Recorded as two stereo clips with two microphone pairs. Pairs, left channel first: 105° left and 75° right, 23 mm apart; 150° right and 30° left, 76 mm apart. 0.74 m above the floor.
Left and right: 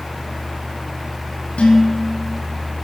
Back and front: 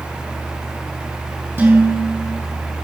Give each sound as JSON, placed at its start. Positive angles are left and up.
{"t": 1.6, "sound": "dishes clattering", "azimuth_deg": 85, "distance_m": 4.5}